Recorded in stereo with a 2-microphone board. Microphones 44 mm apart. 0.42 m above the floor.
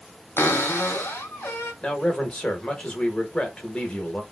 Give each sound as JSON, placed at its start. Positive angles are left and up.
{"t": 0.4, "sound": "a cupboard door", "side_deg": 65, "distance_m": 0.9}
{"t": 1.8, "sound": "a man speaking", "side_deg": 20, "distance_m": 0.8}